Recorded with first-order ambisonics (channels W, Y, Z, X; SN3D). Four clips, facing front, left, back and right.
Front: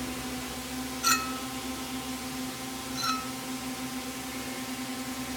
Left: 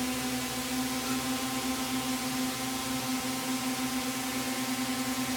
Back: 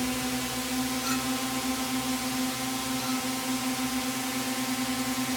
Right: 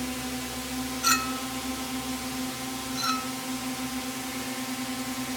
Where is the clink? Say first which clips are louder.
Right 6 dB, front 1 dB; 60° right.